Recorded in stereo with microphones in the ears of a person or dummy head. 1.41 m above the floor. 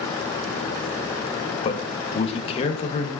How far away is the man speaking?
About 1.0 m.